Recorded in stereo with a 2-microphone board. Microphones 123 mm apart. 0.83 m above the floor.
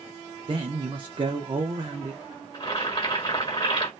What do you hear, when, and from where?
0.5 s a man speaking: 45° right (ahead or behind), 0.7 m
2.5 s boiling: 40° left (ahead or behind), 1.5 m